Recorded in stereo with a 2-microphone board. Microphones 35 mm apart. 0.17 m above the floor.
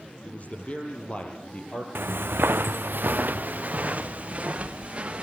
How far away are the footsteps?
About 0.8 m.